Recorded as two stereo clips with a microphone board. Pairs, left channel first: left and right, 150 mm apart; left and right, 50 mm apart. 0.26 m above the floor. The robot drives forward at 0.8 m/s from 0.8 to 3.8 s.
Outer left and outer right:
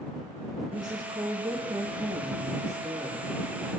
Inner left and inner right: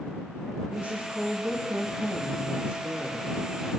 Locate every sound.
0.7 s a woman speaking: 30° right (ahead or behind), 7 m; by 3.3 s 25° right (ahead or behind), 8.5 m